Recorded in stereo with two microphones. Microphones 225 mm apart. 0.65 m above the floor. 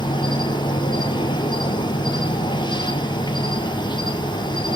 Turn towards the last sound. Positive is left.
turn(degrees=20)  # may be behind; listen again after turning